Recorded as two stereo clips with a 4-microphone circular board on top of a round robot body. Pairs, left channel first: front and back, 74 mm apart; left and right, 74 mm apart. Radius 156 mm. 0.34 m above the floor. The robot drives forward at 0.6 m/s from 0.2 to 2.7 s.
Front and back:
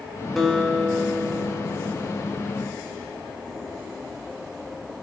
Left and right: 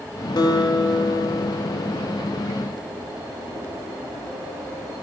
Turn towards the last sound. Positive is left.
turn(degrees=130)